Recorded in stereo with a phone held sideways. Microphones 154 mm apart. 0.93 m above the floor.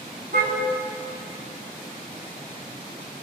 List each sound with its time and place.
0.3 s a car horn: 85° right, 3.5 m